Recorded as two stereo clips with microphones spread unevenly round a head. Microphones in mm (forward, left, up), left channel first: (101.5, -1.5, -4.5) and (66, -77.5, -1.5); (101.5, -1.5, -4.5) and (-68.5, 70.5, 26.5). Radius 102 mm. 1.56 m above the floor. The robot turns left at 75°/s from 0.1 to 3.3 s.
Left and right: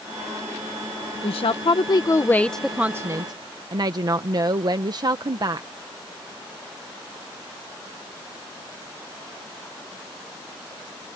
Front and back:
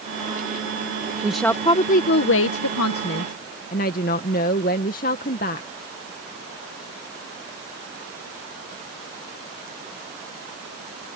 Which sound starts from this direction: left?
A woman speaking, at 1.2 s.